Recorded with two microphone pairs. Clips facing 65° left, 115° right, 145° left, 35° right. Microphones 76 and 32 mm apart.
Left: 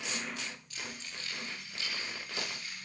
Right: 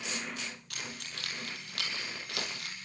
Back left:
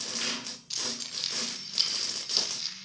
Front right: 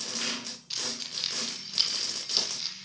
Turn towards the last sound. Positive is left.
turn(degrees=-120)